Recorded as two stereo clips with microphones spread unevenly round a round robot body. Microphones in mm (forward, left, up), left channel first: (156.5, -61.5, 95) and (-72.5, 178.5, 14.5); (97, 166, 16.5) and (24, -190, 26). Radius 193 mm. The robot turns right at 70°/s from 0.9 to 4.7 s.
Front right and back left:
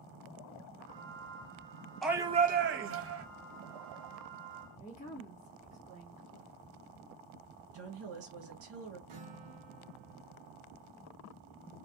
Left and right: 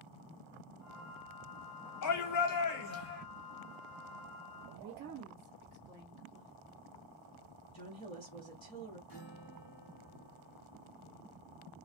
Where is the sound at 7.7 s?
150° left, 1.2 m.